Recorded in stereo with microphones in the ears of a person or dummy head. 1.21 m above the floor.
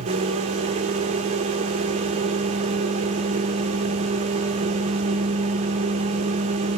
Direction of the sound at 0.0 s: 40° right (ahead or behind).